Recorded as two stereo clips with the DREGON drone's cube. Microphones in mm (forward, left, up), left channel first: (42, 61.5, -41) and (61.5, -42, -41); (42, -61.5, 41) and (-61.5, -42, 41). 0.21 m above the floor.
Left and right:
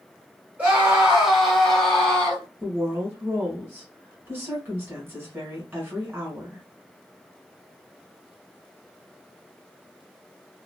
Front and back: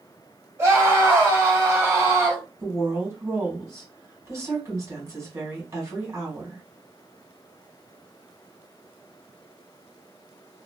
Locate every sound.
0.6 s a scream: 145° right, 2 m; by 2.5 s 155° left, 1.7 m
2.6 s a woman speaking: 140° right, 1.9 m